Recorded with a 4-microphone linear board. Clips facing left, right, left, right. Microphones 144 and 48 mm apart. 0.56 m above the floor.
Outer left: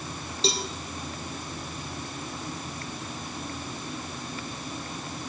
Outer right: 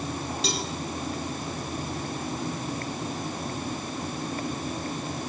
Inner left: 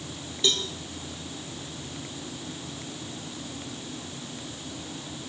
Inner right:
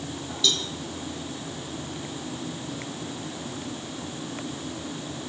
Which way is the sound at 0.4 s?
30° left (ahead or behind).